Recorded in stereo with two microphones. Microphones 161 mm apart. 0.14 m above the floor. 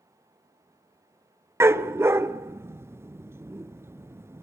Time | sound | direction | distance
1.6 | a dog barking | 15° right (ahead or behind) | 0.5 m